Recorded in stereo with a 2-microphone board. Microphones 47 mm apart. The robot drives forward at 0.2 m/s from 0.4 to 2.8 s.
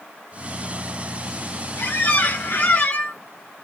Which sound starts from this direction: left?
A squeak, at 1.8 s.